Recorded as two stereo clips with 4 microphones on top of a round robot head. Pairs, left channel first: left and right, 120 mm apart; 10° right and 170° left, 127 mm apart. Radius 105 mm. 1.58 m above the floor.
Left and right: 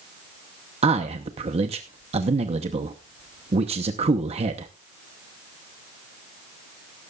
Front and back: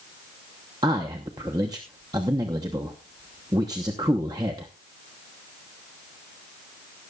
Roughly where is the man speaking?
Behind right.